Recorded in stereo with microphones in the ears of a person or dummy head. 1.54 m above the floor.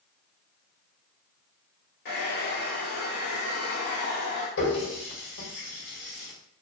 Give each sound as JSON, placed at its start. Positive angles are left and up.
{"t": 2.0, "sound": "a hair dryer", "side_deg": 50, "distance_m": 1.2}
{"t": 4.6, "sound": "a running tap", "side_deg": 65, "distance_m": 1.3}